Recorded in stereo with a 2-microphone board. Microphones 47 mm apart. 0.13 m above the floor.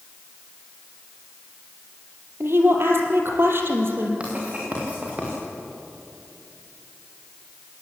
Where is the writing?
25° right (ahead or behind), 6.5 m.